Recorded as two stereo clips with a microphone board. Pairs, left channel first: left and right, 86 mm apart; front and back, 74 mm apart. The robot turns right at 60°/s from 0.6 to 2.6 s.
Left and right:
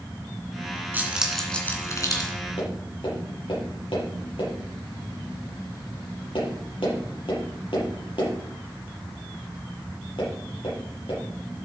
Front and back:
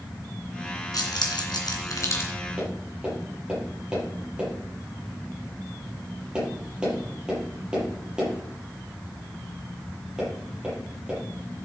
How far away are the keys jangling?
About 2.5 m.